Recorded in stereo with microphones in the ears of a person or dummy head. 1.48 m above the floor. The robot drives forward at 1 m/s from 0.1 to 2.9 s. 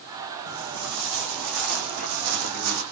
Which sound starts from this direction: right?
Footsteps, at 0.5 s.